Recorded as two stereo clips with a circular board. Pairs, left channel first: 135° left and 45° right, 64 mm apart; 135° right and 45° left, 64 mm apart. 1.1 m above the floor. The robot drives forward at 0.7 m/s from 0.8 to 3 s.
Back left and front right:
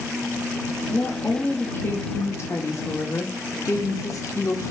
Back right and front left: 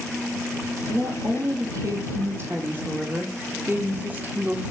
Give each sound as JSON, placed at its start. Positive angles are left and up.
{"t": 0.9, "sound": "a woman speaking", "azimuth_deg": 60, "distance_m": 1.9}